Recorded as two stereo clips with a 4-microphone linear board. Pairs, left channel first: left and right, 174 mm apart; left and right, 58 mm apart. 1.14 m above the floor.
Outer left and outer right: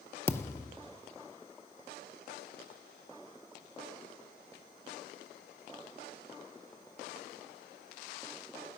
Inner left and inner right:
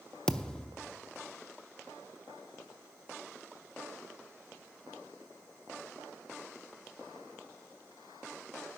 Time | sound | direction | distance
0.3 | a thud | 15° left (ahead or behind) | 0.7 m